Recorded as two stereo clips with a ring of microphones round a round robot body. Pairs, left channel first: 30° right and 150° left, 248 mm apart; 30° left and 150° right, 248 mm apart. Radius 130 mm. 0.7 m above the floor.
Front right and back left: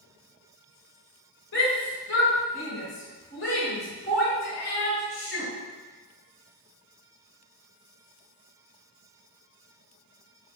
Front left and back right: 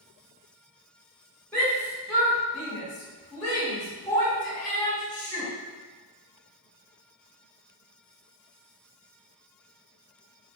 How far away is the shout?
About 1.1 m.